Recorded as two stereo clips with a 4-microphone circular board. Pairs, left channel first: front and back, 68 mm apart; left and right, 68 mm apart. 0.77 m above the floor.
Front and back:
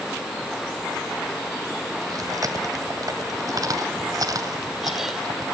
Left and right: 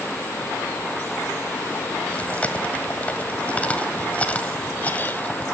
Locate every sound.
2.1 s chewing: 160° left, 1.7 m